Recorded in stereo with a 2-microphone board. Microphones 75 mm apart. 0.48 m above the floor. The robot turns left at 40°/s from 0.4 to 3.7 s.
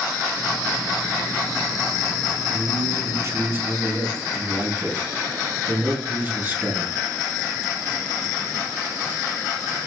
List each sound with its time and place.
2.5 s a man speaking: 105° right, 3 m; by 6.9 s 150° right, 3 m